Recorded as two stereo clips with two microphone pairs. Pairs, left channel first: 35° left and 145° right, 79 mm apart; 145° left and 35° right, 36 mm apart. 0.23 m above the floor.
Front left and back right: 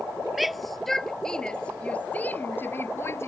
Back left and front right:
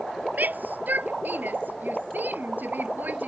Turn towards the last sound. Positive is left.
turn(degrees=-20)